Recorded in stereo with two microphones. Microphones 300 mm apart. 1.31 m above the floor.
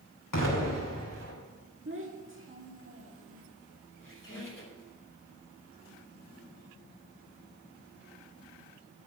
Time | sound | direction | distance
0.3 | an explosion | 80° left | 3 m
1.9 | a child speaking | 40° right (ahead or behind) | 1.9 m
4.0 | a squeak | 75° left (ahead or behind) | 2 m